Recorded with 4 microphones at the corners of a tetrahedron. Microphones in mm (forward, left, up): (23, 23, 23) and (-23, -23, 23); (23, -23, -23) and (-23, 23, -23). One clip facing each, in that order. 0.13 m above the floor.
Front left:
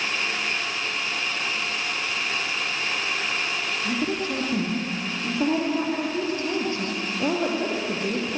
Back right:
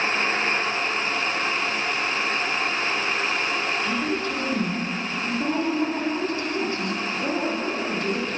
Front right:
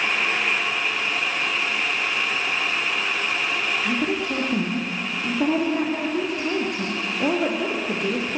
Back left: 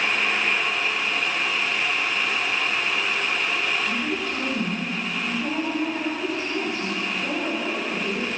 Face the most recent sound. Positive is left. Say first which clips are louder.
# back right 1 dB, front right 3 dB
turn(degrees=-20)